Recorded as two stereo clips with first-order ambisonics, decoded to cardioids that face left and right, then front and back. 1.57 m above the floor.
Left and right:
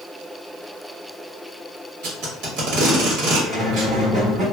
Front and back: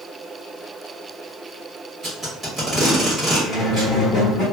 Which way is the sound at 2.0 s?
100° right.